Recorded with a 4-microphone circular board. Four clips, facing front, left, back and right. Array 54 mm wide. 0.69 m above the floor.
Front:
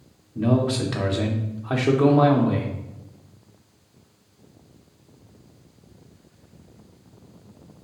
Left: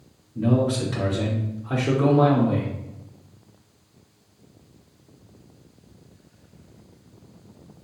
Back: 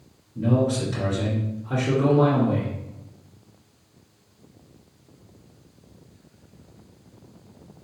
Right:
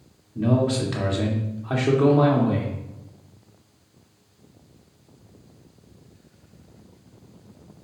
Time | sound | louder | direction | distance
0.3 | a man speaking | even, front 1 dB | 25° right | 1.7 m